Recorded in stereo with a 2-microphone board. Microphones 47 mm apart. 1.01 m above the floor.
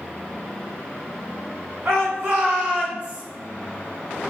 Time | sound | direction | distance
1.9 | a shout | 65° right (ahead or behind) | 4 m